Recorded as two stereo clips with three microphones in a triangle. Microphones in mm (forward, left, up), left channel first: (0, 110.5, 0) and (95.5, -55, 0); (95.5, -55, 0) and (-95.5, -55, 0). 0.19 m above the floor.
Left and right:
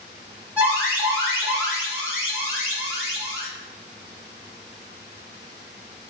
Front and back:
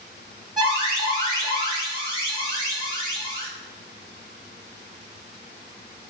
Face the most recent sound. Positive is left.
turn(degrees=-130)